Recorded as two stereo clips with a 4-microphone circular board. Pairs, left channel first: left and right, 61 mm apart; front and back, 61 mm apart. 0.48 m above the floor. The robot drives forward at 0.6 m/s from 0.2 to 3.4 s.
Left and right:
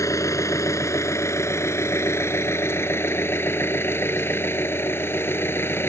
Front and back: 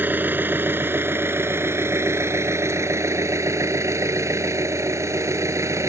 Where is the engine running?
120° left; by 5.9 s 140° left.